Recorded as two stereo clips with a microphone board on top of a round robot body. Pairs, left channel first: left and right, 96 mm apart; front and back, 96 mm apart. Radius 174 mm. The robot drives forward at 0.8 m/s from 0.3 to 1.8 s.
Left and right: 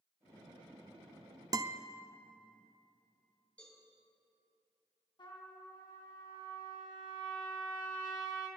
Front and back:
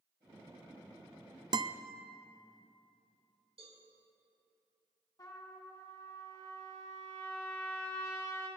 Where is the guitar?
140° right, 0.7 m; by 1.8 s 150° right, 0.8 m.